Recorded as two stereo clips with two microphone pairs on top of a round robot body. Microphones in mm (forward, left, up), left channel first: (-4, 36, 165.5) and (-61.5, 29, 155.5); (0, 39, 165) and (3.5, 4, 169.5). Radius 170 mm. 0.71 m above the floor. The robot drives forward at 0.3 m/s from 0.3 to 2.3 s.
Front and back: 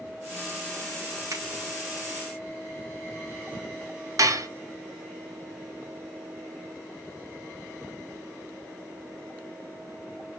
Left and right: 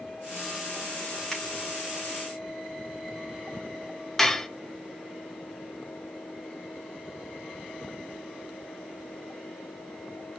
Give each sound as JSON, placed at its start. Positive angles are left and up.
{"t": 1.3, "sound": "a finger snap", "azimuth_deg": 175, "distance_m": 3.5}
{"t": 4.2, "sound": "dishes clattering", "azimuth_deg": 170, "distance_m": 1.3}